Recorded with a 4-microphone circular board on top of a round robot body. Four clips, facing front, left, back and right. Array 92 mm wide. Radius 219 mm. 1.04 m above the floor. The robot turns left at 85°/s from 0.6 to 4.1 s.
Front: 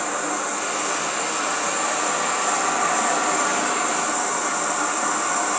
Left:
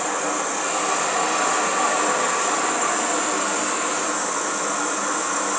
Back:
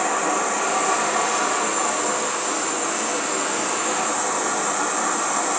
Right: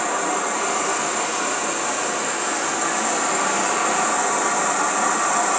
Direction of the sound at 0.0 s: 155° right.